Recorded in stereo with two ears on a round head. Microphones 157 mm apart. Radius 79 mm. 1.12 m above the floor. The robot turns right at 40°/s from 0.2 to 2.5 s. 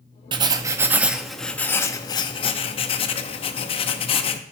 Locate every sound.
0.3 s writing: 40° right, 0.6 m; by 4.4 s 50° left, 0.6 m